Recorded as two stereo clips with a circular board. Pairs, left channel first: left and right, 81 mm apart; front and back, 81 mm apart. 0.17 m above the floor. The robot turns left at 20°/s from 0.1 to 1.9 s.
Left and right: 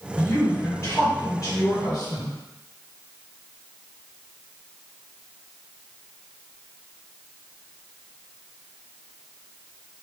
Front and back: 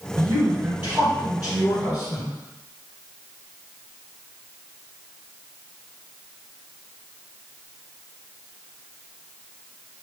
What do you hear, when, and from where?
0.2 s a woman speaking: 130° left, 1.7 m; by 2.3 s 95° left, 1.7 m